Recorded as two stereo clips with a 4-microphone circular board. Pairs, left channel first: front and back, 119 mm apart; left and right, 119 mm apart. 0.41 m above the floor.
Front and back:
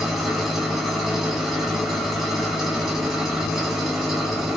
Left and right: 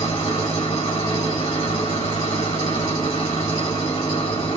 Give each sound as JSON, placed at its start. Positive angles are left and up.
{"t": 0.0, "sound": "an engine running", "azimuth_deg": 90, "distance_m": 1.6}